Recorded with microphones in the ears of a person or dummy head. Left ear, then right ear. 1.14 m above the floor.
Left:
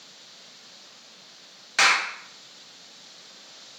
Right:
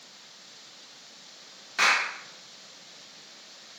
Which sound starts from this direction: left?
A clap, at 1.8 s.